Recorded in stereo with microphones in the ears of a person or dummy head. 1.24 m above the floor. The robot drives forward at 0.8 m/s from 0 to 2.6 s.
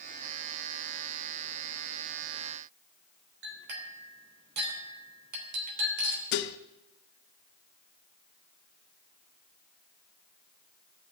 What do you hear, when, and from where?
3.4 s a clink: 60° right (ahead or behind), 3 m
6.3 s dishes clattering: 55° left (ahead or behind), 0.8 m